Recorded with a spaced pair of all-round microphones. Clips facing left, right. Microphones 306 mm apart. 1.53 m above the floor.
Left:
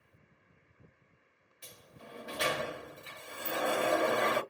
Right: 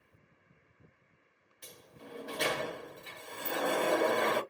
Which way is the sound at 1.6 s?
5° left (ahead or behind).